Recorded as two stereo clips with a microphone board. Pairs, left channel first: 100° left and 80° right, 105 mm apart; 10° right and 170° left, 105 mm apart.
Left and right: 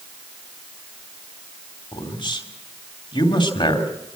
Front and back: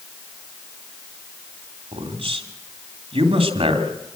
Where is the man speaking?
140° left, 2.5 m.